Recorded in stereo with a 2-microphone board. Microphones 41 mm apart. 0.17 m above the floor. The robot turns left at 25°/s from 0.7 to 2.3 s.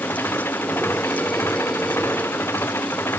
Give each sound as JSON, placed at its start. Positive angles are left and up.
{"t": 0.0, "sound": "an engine running", "azimuth_deg": 115}